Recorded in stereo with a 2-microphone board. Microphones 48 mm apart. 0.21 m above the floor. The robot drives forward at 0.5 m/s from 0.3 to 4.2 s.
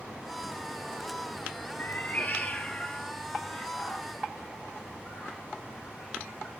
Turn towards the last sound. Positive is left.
turn(degrees=20)  # may be behind; listen again after turning